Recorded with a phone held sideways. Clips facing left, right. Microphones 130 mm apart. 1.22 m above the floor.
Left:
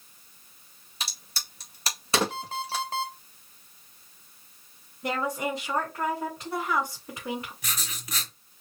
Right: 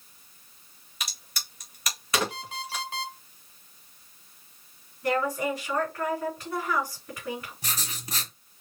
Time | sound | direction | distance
1.0 | a crack | 30° left (ahead or behind) | 1.8 m
2.3 | an alarm clock | 40° left (ahead or behind) | 1.9 m
5.0 | a woman speaking | 20° left (ahead or behind) | 3.5 m
7.6 | writing | 35° right (ahead or behind) | 1.5 m